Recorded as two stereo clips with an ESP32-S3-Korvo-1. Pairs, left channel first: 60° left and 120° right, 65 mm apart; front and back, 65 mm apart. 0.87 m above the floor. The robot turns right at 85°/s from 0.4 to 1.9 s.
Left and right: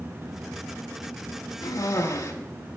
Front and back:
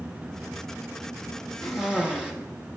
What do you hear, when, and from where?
1.6 s a cough: 80° left, 0.9 m; by 2.3 s 105° left, 0.9 m